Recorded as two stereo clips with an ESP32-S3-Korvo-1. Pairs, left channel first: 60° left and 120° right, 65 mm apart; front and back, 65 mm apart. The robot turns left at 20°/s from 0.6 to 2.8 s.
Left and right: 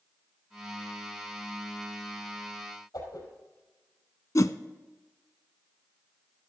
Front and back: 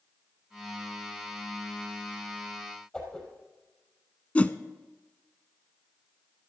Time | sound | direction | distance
2.9 | a whoosh | 75° left | 5 m
4.3 | a whoosh | 65° left | 0.5 m